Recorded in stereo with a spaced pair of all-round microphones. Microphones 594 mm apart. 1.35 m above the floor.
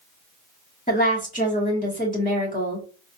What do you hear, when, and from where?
0.9 s a woman speaking: 15° left (ahead or behind), 2 m